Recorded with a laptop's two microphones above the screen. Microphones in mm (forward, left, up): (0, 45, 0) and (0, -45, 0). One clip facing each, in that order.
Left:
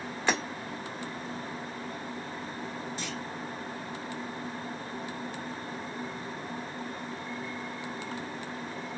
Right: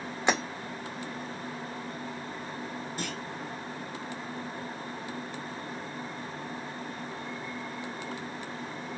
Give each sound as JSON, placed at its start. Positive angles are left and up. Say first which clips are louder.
{"t": 0.3, "sound": "breaking glass", "louder": "right 2 dB", "side_deg": -20, "distance_m": 2.0}
{"t": 3.0, "sound": "a clunk", "louder": "right 1 dB", "side_deg": -55, "distance_m": 0.9}